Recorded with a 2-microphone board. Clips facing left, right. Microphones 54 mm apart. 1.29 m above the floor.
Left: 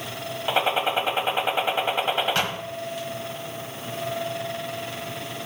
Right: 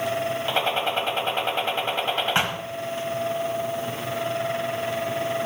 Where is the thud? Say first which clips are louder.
Right 2 dB; 25° right (ahead or behind), 1.2 m.